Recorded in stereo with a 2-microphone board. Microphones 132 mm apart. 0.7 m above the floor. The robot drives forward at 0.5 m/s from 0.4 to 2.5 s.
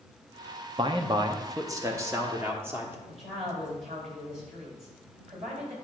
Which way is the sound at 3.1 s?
60° right (ahead or behind).